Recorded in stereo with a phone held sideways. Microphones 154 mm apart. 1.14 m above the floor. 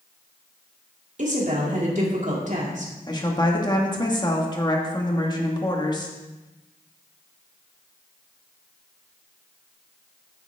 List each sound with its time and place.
1.2 s a woman speaking: 55° right (ahead or behind), 2.5 m
3.1 s a woman speaking: 30° left (ahead or behind), 1.8 m